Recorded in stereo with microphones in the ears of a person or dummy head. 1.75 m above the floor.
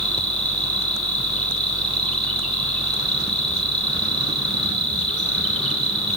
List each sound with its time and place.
0.0 s an insect: 5° left (ahead or behind), 2.5 m